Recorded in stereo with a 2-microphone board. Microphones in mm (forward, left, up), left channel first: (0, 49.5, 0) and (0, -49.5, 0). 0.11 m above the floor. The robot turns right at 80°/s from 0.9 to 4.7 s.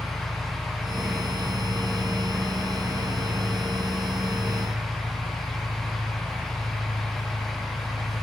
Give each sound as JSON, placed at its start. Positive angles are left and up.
{"t": 0.0, "sound": "an engine running", "azimuth_deg": 65, "distance_m": 5.5}